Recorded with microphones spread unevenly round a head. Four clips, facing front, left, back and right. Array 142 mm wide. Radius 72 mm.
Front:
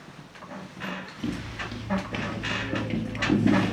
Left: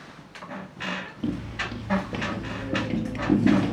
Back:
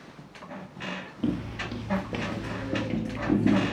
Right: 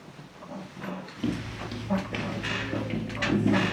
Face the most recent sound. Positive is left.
turn(degrees=80)